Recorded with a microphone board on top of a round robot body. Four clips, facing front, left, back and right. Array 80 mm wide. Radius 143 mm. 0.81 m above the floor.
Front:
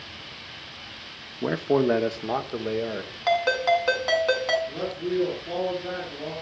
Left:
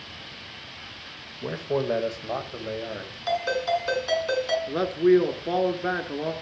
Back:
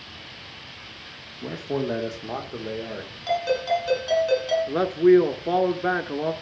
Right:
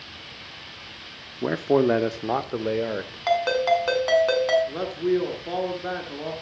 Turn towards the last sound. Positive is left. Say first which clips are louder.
# left 5 dB, back 12 dB
turn(degrees=165)